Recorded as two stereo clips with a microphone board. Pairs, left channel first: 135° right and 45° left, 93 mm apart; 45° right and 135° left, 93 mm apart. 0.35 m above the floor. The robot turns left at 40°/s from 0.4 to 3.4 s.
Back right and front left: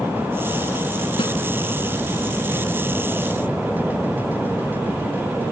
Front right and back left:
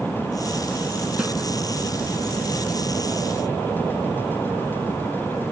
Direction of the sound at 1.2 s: 145° right.